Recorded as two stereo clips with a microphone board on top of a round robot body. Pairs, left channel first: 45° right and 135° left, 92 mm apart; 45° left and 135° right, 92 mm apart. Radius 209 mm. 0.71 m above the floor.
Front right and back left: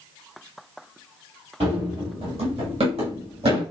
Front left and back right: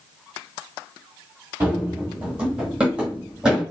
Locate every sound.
1.6 s running footsteps: 160° left, 0.9 m; by 3.6 s 140° left, 2 m